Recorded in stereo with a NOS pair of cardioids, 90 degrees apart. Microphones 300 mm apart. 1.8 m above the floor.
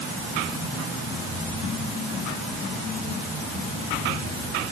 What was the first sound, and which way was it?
Only background noise.